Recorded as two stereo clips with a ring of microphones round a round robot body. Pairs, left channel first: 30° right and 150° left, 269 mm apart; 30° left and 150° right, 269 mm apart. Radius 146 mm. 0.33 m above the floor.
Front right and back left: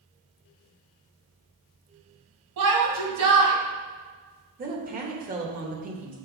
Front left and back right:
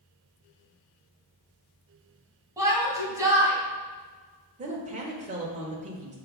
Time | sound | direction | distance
2.6 | a shout | 130° left | 2.5 m
4.6 | a woman speaking | 170° left | 1.2 m